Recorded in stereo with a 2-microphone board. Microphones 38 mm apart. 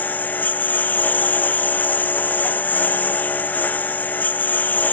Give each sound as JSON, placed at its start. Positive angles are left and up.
{"t": 0.0, "sound": "a lawn mower", "side_deg": 45}